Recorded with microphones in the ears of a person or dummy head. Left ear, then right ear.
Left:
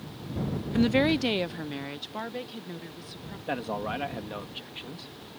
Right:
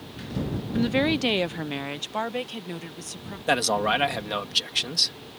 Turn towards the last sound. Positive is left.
turn(degrees=-75)  # may be behind; listen again after turning